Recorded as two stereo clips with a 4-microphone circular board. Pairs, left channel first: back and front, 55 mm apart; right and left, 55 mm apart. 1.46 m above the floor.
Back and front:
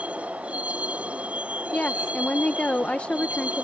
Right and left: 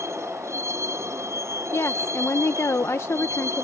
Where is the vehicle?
65° left.